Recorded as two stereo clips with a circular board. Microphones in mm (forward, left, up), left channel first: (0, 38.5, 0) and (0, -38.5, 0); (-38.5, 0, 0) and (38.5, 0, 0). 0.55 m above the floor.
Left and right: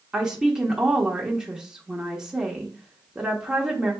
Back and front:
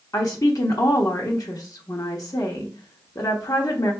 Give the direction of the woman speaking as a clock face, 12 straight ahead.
6 o'clock.